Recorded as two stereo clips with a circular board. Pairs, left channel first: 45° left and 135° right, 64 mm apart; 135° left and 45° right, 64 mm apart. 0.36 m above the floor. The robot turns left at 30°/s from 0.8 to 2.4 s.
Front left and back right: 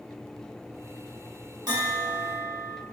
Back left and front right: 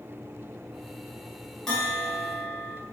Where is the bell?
145° right, 0.8 m; by 2.8 s 165° right, 0.8 m.